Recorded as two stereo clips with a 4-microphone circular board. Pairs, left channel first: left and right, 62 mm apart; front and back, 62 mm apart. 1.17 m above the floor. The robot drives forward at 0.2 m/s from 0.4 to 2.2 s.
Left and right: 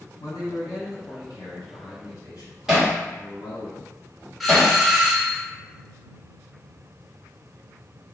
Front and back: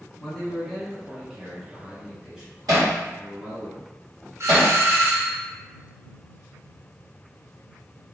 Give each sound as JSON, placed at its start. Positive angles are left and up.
{"t": 0.2, "sound": "a man speaking", "azimuth_deg": 90, "distance_m": 1.3}
{"t": 2.7, "sound": "hammering", "azimuth_deg": -170, "distance_m": 1.2}
{"t": 4.4, "sound": "a doorbell", "azimuth_deg": 180, "distance_m": 0.6}